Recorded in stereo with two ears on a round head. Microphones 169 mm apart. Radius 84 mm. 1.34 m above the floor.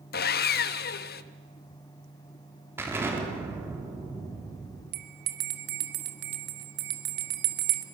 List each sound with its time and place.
0.1 s sawing: 55° left (ahead or behind), 0.9 m
2.8 s an explosion: 10° right (ahead or behind), 4 m
4.9 s a bell: 60° right (ahead or behind), 1.7 m